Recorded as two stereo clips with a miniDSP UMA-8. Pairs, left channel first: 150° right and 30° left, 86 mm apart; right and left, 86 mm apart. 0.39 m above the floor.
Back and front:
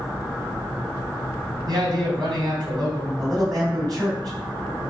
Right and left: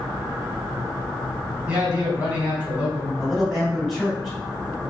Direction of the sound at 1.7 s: 15° left.